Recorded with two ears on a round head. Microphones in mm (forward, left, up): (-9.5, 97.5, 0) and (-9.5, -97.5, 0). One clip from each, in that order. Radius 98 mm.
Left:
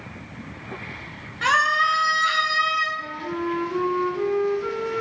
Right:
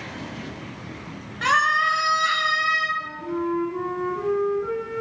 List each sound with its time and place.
1.4 s a scream: 5° right (ahead or behind), 2.5 m
3.0 s a flute: 75° left (ahead or behind), 2.5 m